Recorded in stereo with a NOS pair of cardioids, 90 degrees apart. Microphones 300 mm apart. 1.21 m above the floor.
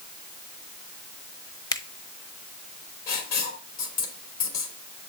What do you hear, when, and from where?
1.7 s a finger snap: 15° left, 0.9 m
3.1 s writing: 65° left, 3.5 m